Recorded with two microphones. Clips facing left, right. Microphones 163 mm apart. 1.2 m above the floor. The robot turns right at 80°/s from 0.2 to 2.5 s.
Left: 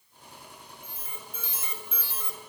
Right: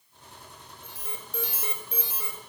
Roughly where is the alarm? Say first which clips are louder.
Right 5 dB; behind right.